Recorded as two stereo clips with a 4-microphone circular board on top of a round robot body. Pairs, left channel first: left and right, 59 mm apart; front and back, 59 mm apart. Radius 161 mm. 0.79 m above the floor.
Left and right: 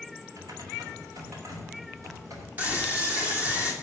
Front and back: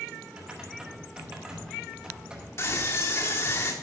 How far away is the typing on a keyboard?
About 3 m.